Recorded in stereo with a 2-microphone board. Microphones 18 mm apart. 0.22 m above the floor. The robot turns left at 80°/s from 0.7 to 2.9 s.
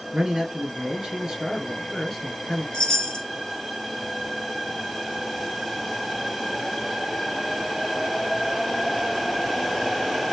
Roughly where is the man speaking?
Right.